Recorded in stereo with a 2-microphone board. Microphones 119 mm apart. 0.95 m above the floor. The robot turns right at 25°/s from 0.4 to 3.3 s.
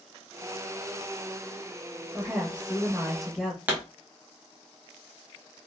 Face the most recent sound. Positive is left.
turn(degrees=-15)  # may be behind; listen again after turning